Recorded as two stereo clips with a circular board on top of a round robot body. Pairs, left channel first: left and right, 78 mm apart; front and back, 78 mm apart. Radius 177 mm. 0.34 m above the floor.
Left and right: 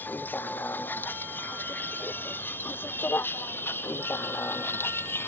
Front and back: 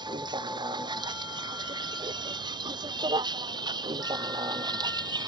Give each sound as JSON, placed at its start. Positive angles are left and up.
{"t": 0.0, "sound": "a vehicle", "azimuth_deg": 155}